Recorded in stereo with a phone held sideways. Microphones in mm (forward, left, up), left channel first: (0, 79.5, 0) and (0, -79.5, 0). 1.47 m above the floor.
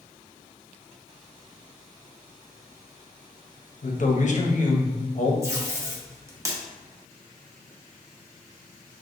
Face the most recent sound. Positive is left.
turn(degrees=-20)  # may be behind; listen again after turning